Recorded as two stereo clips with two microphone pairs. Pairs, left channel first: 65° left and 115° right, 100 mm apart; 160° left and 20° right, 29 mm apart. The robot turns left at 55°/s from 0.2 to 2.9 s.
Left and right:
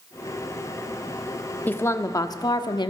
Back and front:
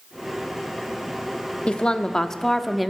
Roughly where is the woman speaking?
Behind left.